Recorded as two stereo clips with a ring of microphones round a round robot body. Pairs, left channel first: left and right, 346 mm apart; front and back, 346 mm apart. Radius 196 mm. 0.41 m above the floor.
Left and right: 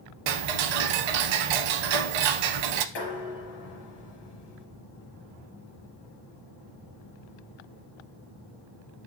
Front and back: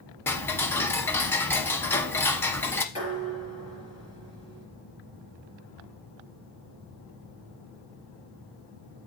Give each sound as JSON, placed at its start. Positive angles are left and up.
{"t": 0.3, "sound": "ticking", "azimuth_deg": -85, "distance_m": 0.5}
{"t": 3.0, "sound": "dishes clattering", "azimuth_deg": 75, "distance_m": 5.0}